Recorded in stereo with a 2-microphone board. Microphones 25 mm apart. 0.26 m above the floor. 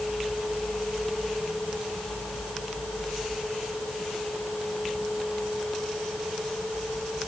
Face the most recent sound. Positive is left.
No sound to turn to.